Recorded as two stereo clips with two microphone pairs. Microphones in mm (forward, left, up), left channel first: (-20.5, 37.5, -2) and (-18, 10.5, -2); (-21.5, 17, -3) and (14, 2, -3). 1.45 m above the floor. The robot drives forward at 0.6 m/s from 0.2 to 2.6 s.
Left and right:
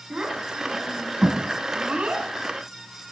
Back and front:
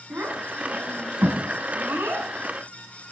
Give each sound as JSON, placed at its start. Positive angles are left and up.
{"t": 0.1, "sound": "a child speaking", "azimuth_deg": -35, "distance_m": 9.0}